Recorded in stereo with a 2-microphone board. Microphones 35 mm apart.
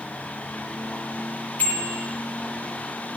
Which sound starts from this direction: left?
A bicycle bell, at 1.6 s.